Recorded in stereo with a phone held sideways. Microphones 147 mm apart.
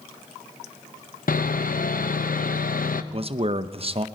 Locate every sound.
1.3 s sawing: 70° left (ahead or behind), 0.7 m
3.1 s a man speaking: 40° right (ahead or behind), 0.6 m